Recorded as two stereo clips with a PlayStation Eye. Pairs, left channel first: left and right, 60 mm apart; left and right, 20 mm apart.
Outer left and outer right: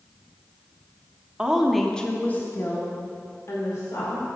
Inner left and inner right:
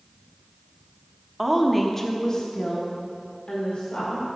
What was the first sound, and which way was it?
A woman speaking, 15° right (ahead or behind).